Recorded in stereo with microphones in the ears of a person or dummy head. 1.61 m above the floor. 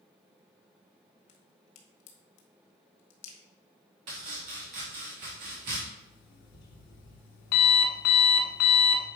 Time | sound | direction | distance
1.3 | a crack | 90° left | 1.6 m
4.1 | chopping | 35° right (ahead or behind) | 1.2 m
6.0 | an alarm clock | 60° left (ahead or behind) | 1.8 m